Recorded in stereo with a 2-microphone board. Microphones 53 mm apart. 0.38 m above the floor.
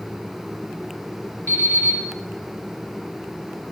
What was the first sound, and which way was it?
An alarm clock, 55° left (ahead or behind).